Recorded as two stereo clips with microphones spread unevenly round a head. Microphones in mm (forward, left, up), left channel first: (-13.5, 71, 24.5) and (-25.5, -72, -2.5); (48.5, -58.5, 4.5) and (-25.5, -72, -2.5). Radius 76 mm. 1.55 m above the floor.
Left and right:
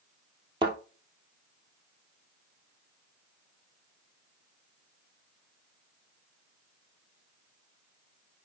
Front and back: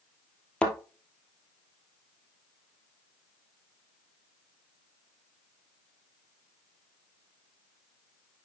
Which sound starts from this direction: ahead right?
A thud, at 0.6 s.